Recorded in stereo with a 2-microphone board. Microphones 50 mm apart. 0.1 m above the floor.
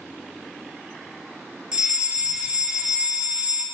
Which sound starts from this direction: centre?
A fire alarm, at 1.7 s.